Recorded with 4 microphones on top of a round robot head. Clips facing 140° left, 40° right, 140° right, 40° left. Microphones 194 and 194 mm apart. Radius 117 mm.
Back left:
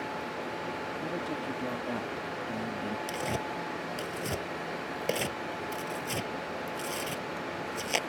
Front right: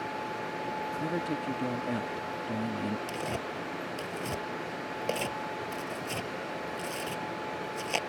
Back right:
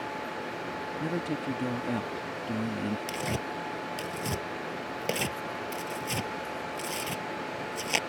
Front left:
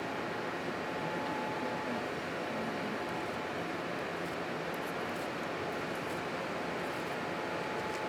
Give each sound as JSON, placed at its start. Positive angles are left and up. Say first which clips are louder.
{"t": 1.0, "sound": "a man speaking", "louder": "front right 4 dB, back right 10 dB", "azimuth_deg": -110}
{"t": 3.1, "sound": "tearing paper", "louder": "back left 1 dB, back right 4 dB", "azimuth_deg": -140}